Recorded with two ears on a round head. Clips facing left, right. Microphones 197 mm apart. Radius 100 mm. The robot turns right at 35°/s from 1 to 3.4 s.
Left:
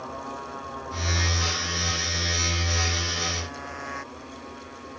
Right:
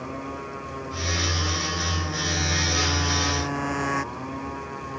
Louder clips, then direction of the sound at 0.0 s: Right 3 dB; 35° right (ahead or behind).